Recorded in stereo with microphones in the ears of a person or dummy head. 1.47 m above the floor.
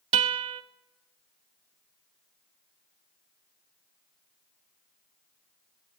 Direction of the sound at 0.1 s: 25° right (ahead or behind).